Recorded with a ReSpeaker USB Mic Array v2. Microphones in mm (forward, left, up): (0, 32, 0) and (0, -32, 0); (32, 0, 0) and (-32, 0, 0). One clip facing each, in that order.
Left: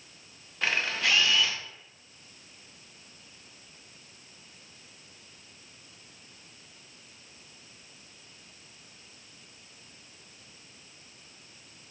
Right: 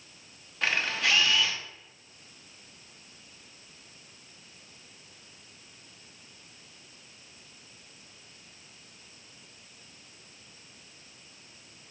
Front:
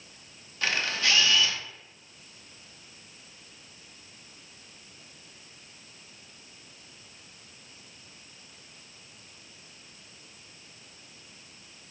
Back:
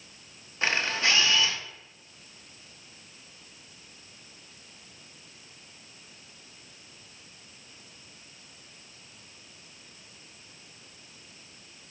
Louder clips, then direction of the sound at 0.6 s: Even, back 2 dB; 175° left.